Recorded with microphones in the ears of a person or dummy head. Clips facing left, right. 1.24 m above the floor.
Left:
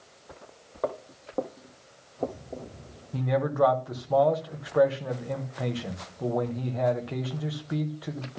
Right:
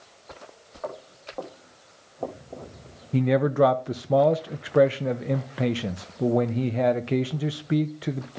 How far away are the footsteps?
About 2 m.